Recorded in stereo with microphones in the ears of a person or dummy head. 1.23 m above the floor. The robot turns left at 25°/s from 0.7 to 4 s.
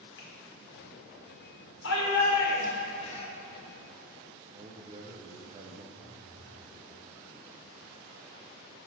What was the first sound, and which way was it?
A finger snap, 60° left (ahead or behind).